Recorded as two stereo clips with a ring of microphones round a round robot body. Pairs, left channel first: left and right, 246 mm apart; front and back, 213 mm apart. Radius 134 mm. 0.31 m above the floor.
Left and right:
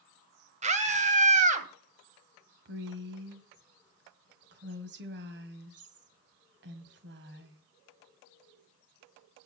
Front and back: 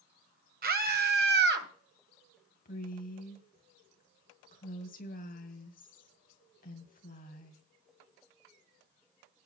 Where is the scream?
145° right, 1.8 m; by 1.7 s 150° right, 2.5 m.